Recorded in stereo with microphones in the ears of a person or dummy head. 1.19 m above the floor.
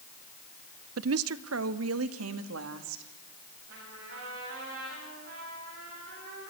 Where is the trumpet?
80° right, 9 m.